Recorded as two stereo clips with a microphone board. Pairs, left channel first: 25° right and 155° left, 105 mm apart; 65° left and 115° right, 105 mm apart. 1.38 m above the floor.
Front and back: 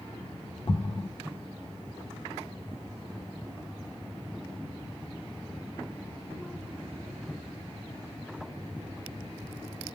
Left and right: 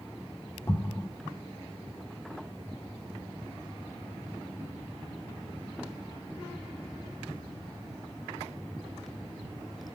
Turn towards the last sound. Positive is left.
turn(degrees=10)